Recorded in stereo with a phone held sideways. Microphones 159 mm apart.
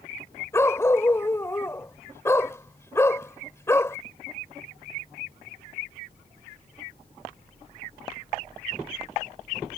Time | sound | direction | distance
0.5 | a dog barking | 15° left (ahead or behind) | ?